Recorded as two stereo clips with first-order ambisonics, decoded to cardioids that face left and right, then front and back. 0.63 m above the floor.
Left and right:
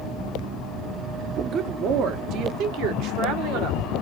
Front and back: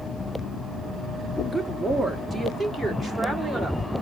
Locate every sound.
1.5 s a woman speaking: 90° right, 0.6 m; by 3.8 s 85° right, 1.7 m